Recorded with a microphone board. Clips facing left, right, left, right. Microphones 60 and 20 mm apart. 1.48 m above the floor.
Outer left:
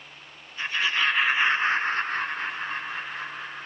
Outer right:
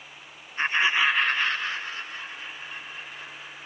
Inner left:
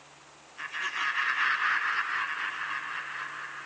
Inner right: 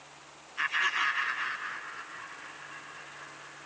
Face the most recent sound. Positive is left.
turn(degrees=75)  # may be behind; listen again after turning